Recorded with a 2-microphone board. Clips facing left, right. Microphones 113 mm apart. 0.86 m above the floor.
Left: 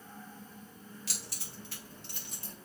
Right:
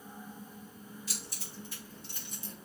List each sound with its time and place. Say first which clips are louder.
1.1 s keys jangling: right 1 dB; 70° left (ahead or behind), 3 m; by 2.5 s 55° left (ahead or behind), 3.5 m